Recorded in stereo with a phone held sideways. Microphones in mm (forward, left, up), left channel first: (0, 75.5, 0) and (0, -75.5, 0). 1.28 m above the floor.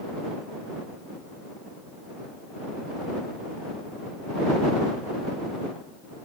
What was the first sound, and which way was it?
Only background noise.